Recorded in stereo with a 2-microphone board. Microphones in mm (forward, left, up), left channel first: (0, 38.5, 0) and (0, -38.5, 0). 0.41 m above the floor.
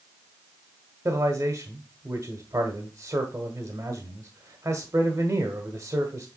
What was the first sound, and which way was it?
A man speaking, 40° right (ahead or behind).